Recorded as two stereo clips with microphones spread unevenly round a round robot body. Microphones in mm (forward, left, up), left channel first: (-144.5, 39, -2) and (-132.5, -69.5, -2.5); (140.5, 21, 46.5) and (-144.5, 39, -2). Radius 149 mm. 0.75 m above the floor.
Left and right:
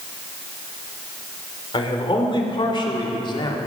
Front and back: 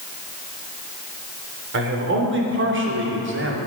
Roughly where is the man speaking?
Behind left.